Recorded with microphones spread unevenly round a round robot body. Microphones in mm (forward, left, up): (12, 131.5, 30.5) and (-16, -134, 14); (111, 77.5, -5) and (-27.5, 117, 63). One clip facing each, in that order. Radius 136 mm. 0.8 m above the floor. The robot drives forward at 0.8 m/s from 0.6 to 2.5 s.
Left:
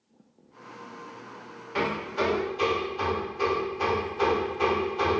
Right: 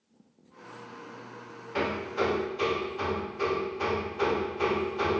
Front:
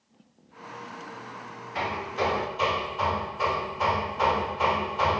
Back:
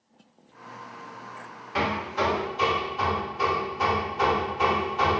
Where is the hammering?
170° left, 0.7 m; by 5.2 s 175° left, 1.3 m.